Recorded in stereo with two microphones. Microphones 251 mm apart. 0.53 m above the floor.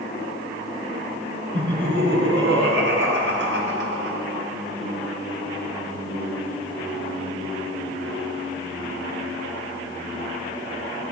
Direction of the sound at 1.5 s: 50° right (ahead or behind).